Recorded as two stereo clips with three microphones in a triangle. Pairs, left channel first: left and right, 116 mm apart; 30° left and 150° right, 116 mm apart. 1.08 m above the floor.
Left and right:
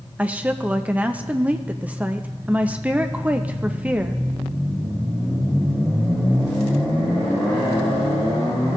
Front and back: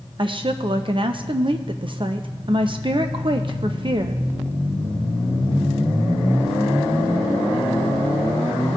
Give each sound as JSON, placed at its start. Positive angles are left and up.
{"t": 0.2, "sound": "a woman speaking", "azimuth_deg": -165, "distance_m": 0.6}